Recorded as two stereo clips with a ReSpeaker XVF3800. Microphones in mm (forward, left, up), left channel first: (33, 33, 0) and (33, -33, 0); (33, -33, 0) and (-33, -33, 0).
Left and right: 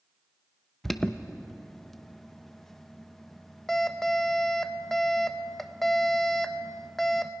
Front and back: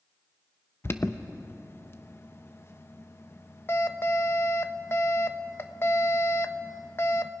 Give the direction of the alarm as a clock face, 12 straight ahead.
12 o'clock.